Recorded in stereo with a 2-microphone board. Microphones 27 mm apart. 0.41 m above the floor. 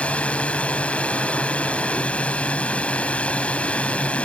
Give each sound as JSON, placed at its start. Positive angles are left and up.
{"t": 0.0, "sound": "a drone", "side_deg": 55}